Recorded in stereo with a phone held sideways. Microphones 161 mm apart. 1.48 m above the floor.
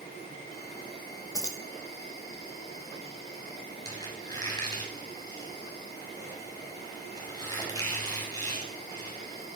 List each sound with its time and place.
0.0 s an insect: 80° left, 10 m
1.3 s keys jangling: 20° left (ahead or behind), 2 m
3.9 s a squeak: 25° left (ahead or behind), 6.5 m